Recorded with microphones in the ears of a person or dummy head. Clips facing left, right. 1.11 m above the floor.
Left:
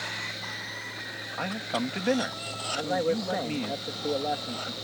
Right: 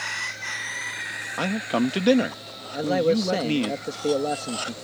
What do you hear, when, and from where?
1.4 s a man speaking: 50° right (ahead or behind)
2.7 s a man speaking: 40° right (ahead or behind)